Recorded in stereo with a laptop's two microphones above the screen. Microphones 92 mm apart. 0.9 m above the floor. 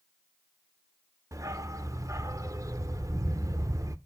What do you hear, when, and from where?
1.3 s a dog barking: 35° right (ahead or behind), 0.6 m